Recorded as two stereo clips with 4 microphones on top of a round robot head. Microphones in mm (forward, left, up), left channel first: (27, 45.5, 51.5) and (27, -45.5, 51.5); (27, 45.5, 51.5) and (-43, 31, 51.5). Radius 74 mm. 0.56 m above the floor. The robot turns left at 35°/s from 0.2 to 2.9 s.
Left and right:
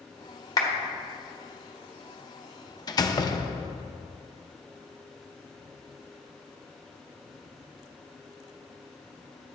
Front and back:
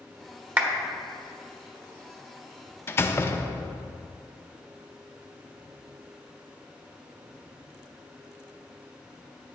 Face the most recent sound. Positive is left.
turn(degrees=60)